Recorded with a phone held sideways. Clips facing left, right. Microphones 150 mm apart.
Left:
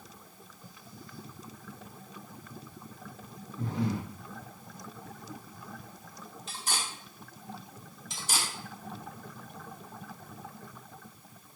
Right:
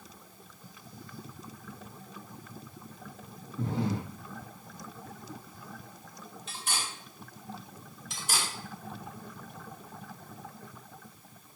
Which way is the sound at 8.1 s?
55° right (ahead or behind).